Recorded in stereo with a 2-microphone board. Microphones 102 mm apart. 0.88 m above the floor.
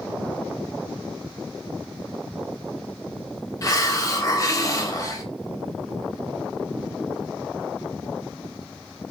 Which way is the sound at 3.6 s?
35° left (ahead or behind).